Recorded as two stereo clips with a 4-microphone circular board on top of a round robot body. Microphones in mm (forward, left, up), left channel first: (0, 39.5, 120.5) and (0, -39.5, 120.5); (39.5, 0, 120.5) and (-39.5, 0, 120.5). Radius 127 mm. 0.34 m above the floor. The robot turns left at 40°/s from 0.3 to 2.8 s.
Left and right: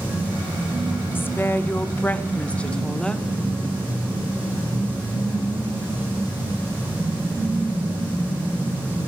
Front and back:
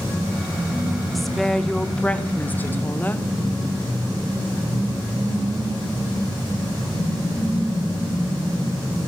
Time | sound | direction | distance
1.1 | a woman speaking | 90° left | 0.8 m